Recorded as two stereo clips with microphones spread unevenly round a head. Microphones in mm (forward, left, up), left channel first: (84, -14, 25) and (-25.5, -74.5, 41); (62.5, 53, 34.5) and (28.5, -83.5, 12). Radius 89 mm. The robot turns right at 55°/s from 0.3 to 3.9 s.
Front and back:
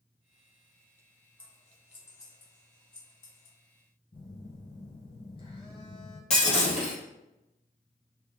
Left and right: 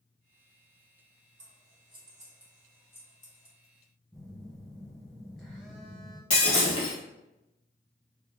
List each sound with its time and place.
1.4 s scissors: 80° right, 1.4 m; by 3.6 s 40° left, 1.4 m
4.1 s a phone buzzing: 5° right, 2.0 m
6.3 s breaking glass: 75° left, 1.8 m